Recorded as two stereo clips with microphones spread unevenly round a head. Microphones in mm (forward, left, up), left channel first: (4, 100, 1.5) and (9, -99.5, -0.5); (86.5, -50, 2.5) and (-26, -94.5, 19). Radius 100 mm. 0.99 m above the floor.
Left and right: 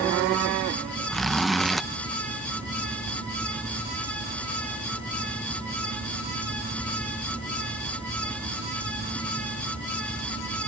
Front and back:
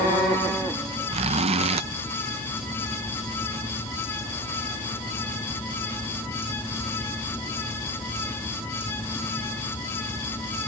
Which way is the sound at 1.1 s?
Straight behind.